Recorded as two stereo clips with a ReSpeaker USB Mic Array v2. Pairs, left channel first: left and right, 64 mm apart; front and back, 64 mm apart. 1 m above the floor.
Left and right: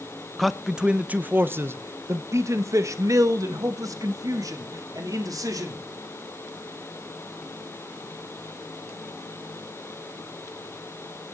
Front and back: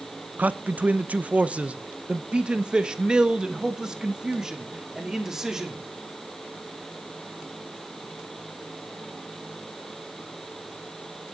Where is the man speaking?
175° left, 0.8 m; by 5.8 s 100° right, 3 m.